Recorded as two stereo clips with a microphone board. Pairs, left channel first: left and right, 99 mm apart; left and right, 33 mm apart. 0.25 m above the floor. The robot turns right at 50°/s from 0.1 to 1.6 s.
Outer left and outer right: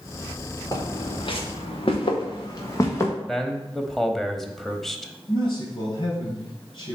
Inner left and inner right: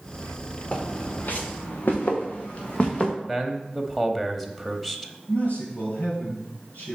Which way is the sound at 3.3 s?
Centre (ahead or behind).